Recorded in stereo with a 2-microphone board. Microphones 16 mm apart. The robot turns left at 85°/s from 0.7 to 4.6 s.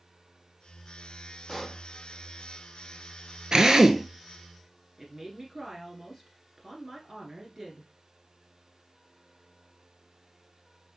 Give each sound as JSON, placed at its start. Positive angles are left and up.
{"t": 1.5, "sound": "a pop", "side_deg": -10, "distance_m": 1.9}
{"t": 3.5, "sound": "a drill", "azimuth_deg": -105, "distance_m": 0.6}
{"t": 5.0, "sound": "a woman speaking", "side_deg": -30, "distance_m": 1.5}